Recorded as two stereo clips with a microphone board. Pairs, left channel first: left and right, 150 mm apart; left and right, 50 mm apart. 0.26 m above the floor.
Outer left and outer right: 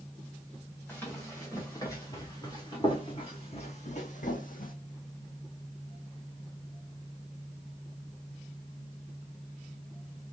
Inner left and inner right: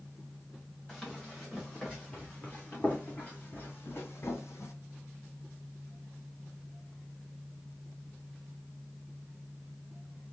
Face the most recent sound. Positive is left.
turn(degrees=75)  # may be behind; listen again after turning